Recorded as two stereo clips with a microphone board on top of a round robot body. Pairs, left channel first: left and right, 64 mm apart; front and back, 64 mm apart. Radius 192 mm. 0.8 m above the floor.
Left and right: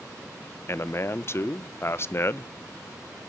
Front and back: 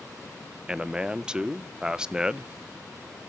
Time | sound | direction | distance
0.7 | a man speaking | 105° left | 0.7 m